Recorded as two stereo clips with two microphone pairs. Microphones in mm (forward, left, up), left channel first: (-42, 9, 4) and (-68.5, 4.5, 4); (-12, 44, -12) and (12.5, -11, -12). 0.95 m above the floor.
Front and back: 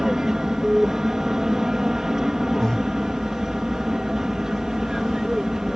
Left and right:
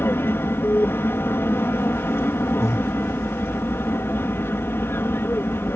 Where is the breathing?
80° left.